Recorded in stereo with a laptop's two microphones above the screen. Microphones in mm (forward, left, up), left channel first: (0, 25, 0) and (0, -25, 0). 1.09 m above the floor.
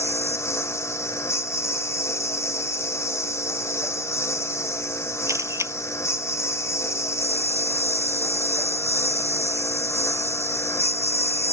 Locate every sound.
0.0 s a lawn mower: 70° left (ahead or behind)
5.3 s a camera shutter: 85° right